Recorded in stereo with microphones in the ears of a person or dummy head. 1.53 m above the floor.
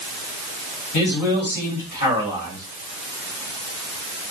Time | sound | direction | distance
0.9 | a man speaking | 60° left (ahead or behind) | 3 m